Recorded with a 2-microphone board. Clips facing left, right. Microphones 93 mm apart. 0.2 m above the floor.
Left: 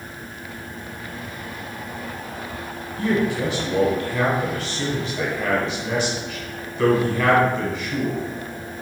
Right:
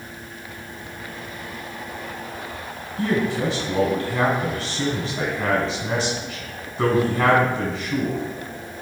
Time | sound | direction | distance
3.0 | a man speaking | 30° right (ahead or behind) | 1.5 m